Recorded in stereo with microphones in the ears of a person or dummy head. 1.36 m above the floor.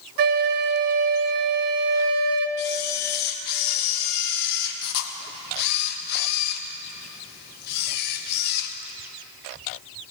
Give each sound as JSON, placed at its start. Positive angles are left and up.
{"t": 0.2, "sound": "a flute", "side_deg": -55, "distance_m": 0.7}
{"t": 2.6, "sound": "a camera shutter", "side_deg": 55, "distance_m": 1.1}